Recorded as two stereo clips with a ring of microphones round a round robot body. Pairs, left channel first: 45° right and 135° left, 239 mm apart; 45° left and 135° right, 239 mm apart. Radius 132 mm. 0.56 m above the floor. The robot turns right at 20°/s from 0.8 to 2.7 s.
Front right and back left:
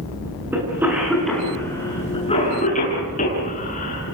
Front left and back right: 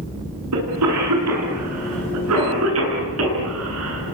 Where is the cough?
145° right, 8.5 m; by 4.1 s 105° right, 8.5 m.